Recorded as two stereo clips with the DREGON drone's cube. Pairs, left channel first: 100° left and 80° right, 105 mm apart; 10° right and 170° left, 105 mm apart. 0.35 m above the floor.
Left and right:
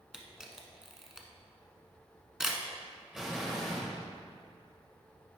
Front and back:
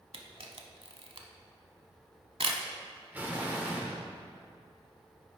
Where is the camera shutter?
165° right, 0.8 m.